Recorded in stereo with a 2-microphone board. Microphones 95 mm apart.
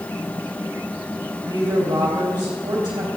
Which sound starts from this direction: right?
A woman speaking, at 1.5 s.